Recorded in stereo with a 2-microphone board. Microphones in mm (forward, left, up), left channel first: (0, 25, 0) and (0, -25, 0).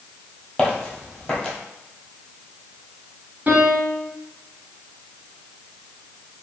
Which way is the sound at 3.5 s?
40° right (ahead or behind).